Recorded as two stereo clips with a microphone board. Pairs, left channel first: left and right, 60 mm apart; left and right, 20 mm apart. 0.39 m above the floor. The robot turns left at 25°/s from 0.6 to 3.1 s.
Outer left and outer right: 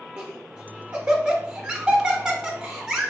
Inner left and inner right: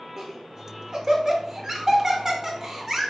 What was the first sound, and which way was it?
Laughter, 20° right (ahead or behind).